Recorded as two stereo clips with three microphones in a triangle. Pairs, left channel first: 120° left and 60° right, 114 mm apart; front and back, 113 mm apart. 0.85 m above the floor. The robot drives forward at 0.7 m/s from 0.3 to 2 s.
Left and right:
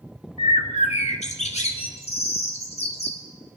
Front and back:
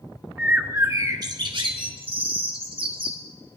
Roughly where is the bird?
Left.